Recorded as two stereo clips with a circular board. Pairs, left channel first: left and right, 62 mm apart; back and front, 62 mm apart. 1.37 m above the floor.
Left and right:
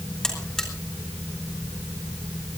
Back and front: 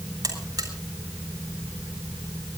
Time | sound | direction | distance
0.2 | a buzzer | 10° left | 4 m